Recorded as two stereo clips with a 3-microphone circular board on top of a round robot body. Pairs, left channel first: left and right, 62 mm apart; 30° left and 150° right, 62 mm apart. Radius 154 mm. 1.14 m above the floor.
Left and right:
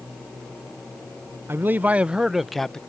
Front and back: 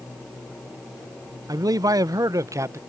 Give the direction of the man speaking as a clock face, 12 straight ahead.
5 o'clock.